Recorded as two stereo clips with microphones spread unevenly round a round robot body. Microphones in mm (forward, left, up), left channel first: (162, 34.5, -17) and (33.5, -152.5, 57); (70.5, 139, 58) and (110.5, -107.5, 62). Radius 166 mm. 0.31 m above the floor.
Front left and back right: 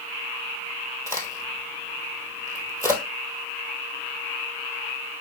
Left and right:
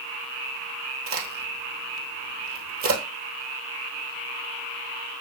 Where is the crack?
50° right, 1.6 m.